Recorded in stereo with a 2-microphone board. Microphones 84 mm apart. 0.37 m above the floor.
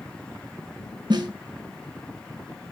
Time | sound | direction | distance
1.1 | a snare drum | 65° right (ahead or behind) | 4 m